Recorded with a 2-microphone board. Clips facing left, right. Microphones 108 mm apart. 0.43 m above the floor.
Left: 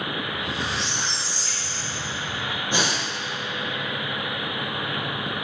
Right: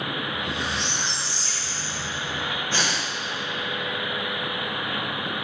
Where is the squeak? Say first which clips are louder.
Even; centre (ahead or behind), 2 m.